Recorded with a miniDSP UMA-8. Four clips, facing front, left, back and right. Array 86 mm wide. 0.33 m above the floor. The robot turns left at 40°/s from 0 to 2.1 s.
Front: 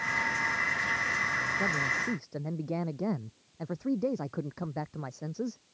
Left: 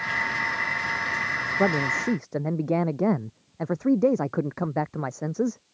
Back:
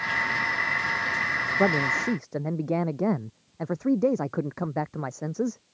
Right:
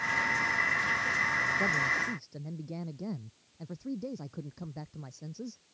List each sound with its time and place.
1.6 s a man speaking: 135° left; by 5.6 s 115° left